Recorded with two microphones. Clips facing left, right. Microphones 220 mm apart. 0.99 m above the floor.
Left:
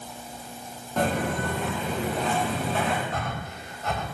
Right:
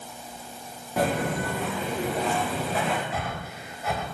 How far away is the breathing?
About 3 m.